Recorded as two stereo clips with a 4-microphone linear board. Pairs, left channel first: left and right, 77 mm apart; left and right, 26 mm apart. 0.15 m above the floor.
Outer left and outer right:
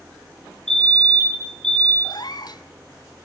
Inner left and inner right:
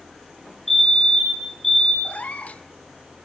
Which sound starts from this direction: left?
A cat meowing, at 2.0 s.